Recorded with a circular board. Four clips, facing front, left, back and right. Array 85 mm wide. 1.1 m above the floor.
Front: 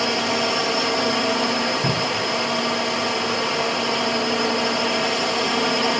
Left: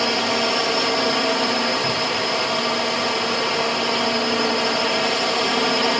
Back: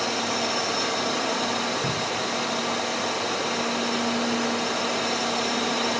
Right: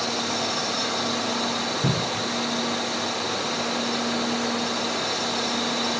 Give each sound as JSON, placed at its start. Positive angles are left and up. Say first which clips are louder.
{"t": 0.0, "sound": "a drone", "louder": "left 6 dB, front 5 dB", "azimuth_deg": 55}
{"t": 1.8, "sound": "a cupboard door", "louder": "left 3 dB, front 4 dB", "azimuth_deg": -70}